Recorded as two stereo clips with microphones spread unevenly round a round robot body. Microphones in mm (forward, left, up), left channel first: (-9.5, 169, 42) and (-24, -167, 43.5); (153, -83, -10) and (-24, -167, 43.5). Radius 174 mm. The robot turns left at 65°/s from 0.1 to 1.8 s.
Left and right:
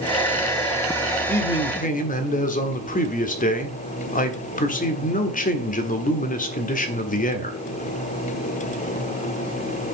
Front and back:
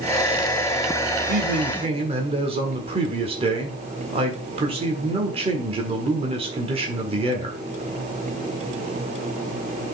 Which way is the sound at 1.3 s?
170° left.